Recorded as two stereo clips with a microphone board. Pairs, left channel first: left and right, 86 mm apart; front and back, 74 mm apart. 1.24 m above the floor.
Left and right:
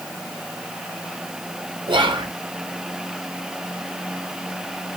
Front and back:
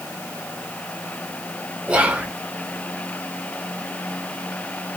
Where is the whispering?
105° right, 0.9 m.